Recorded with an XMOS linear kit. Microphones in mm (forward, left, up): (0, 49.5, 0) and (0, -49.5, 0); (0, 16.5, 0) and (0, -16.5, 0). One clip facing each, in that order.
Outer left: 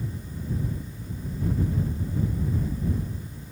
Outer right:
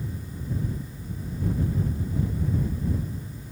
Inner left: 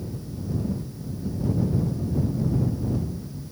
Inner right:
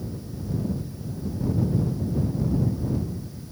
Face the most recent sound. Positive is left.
No sound to turn to.